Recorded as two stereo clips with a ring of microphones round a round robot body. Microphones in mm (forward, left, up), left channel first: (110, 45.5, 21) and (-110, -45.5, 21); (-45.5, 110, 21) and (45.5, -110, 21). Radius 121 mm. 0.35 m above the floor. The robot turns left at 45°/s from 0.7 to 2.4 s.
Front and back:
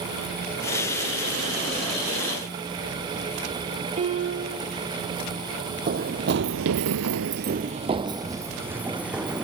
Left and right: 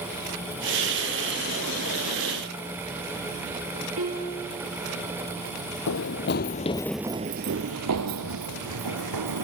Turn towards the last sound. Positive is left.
turn(degrees=-70)